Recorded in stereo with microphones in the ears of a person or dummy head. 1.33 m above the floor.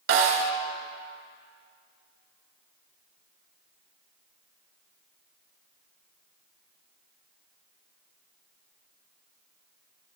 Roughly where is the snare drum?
Right.